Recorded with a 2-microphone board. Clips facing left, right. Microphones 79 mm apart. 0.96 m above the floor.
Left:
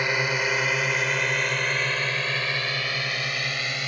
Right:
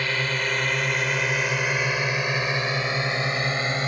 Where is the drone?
15° left (ahead or behind); by 3.9 s 35° right (ahead or behind).